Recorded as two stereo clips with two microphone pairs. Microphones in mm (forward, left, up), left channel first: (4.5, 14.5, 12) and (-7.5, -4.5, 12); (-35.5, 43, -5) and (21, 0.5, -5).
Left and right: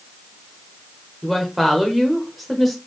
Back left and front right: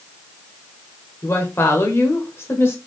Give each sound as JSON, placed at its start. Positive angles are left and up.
{"t": 1.2, "sound": "a woman speaking", "azimuth_deg": 150, "distance_m": 1.0}